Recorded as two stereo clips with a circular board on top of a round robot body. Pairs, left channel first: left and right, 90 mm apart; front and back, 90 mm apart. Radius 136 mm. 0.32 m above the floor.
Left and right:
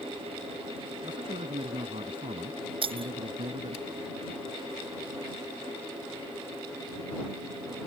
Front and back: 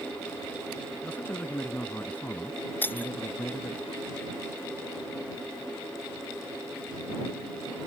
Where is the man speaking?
70° right.